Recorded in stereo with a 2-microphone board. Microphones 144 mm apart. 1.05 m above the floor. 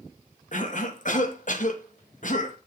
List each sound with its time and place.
0.5 s a cough: 65° left (ahead or behind), 1.3 m